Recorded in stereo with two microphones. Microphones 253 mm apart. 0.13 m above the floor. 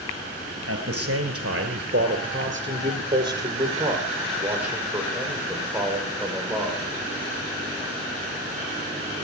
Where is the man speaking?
55° right (ahead or behind), 1.9 m; by 6.8 s 5° left (ahead or behind), 6 m.